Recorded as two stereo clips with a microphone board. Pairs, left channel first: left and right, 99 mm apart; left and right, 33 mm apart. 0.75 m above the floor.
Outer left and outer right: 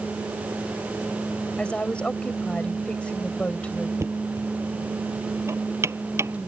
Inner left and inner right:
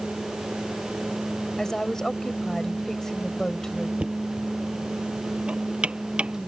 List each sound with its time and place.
1.6 s a woman speaking: 10° left (ahead or behind)
4.0 s knocking: 25° right (ahead or behind)